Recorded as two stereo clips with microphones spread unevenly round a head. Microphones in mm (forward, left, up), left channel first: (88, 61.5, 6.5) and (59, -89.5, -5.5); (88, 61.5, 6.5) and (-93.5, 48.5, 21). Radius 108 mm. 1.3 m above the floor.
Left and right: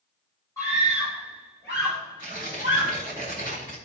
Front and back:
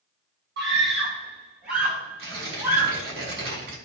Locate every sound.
0.6 s a scream: 155° left, 7.5 m
2.2 s tearing paper: 175° right, 4.5 m